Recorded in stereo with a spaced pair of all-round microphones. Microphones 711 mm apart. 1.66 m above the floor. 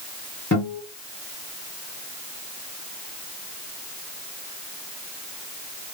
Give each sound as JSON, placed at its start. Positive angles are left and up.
{"t": 0.5, "sound": "a guitar", "side_deg": 15, "distance_m": 2.0}